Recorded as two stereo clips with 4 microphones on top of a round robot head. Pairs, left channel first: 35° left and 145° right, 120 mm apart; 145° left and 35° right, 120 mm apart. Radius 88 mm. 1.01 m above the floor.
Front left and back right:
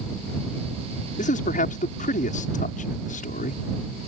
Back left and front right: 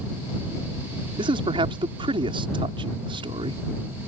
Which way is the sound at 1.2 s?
20° left.